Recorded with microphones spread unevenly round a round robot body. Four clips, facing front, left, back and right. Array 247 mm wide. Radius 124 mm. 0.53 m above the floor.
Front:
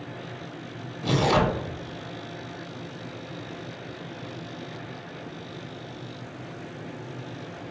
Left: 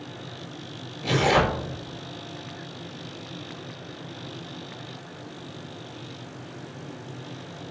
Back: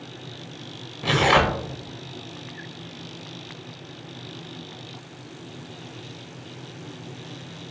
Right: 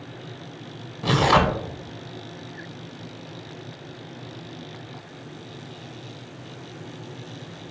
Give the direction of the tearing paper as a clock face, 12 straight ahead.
4 o'clock.